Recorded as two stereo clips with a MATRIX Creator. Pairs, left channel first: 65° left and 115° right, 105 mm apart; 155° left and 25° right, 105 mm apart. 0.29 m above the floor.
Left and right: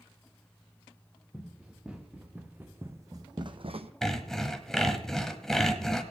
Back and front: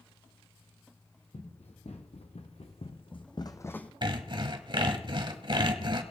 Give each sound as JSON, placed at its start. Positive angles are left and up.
{"t": 1.3, "sound": "running footsteps", "azimuth_deg": 165, "distance_m": 3.0}
{"t": 4.0, "sound": "sawing", "azimuth_deg": -15, "distance_m": 1.2}